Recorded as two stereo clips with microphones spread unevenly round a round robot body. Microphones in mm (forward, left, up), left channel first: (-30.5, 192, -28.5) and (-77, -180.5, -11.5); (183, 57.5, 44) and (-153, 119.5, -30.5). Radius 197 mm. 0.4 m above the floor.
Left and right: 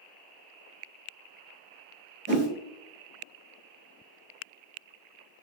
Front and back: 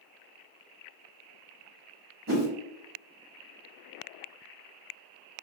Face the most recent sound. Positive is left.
turn(degrees=-150)